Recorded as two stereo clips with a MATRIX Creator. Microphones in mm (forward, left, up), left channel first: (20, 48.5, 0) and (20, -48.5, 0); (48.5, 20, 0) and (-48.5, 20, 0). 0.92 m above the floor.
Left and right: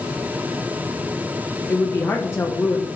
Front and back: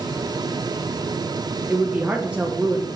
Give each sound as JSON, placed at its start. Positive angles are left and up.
{"t": 1.7, "sound": "a woman speaking", "azimuth_deg": 115, "distance_m": 0.9}